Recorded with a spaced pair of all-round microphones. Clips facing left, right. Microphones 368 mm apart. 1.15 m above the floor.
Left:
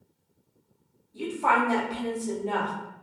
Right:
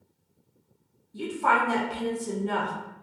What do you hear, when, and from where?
1.1 s a woman speaking: 25° right (ahead or behind), 0.6 m